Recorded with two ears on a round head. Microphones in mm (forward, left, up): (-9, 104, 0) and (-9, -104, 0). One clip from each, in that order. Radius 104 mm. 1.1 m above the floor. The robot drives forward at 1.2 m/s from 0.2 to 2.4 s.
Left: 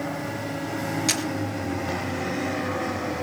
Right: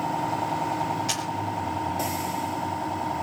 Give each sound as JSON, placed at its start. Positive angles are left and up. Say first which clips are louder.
{"t": 1.1, "sound": "a camera shutter", "louder": "left 3 dB", "side_deg": 80, "distance_m": 4.0}